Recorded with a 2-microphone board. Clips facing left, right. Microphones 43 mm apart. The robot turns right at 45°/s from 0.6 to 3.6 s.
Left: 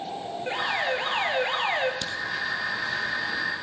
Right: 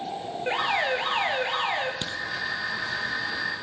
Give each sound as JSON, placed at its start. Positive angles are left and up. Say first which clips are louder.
{"t": 0.5, "sound": "an alarm", "louder": "right 2 dB", "azimuth_deg": -25, "distance_m": 1.8}
{"t": 2.0, "sound": "a crack", "louder": "left 1 dB", "side_deg": -30, "distance_m": 1.2}